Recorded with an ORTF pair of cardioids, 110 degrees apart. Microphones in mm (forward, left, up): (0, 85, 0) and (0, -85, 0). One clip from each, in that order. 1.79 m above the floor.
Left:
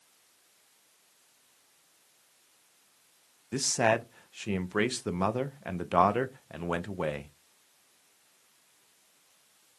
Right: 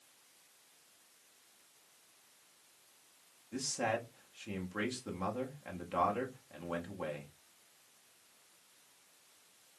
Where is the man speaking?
50° left, 0.6 m.